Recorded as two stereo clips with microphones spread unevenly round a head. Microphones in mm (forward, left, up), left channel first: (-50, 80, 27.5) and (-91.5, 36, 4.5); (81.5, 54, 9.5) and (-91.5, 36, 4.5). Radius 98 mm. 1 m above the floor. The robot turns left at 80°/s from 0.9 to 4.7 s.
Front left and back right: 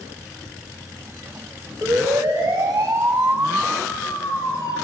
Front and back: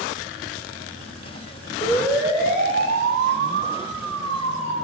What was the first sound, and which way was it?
A siren, 60° right.